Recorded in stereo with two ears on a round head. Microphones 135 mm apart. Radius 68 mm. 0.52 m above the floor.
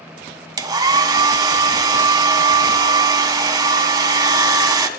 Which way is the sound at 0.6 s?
25° right (ahead or behind).